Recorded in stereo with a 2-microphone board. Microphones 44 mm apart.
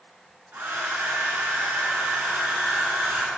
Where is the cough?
I don't hear a cough.